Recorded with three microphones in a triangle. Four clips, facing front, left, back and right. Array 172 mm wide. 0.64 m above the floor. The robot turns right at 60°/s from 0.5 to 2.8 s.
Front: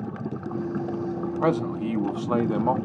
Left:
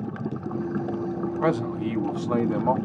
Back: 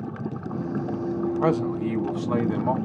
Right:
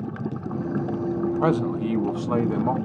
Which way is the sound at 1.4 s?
75° right.